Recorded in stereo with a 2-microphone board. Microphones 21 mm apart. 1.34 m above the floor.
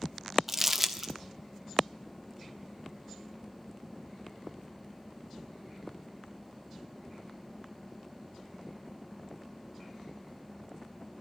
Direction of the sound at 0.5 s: 15° right (ahead or behind).